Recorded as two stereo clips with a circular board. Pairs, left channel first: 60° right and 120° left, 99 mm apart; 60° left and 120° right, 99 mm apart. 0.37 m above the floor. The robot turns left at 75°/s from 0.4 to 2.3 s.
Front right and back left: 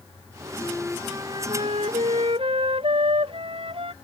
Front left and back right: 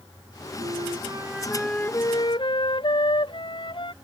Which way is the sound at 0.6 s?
135° right.